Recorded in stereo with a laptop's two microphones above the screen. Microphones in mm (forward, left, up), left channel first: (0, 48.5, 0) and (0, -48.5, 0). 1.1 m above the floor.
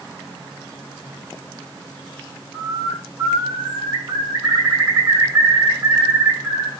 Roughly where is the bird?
Right.